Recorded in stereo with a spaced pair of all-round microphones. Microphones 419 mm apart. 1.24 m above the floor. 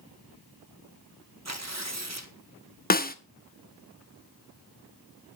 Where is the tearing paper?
40° right (ahead or behind), 1.5 m.